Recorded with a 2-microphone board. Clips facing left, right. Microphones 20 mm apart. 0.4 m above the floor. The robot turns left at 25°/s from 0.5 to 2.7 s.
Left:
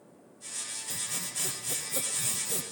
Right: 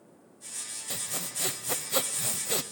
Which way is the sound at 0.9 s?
75° right.